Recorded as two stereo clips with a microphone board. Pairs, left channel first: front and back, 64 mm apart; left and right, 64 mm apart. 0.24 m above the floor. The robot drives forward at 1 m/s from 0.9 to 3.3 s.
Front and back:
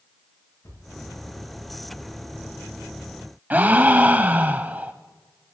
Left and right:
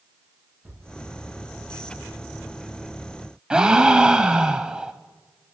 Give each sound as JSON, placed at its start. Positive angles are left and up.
{"t": 0.6, "sound": "a thud", "azimuth_deg": -25, "distance_m": 7.0}
{"t": 3.5, "sound": "a gasp", "azimuth_deg": -155, "distance_m": 0.6}